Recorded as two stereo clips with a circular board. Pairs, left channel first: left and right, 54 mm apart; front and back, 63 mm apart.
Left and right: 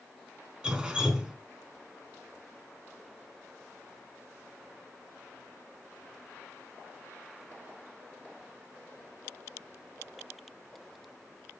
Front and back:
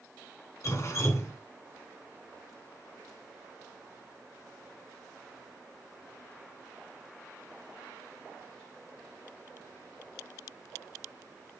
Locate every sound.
0.6 s dripping: 15° right, 1.9 m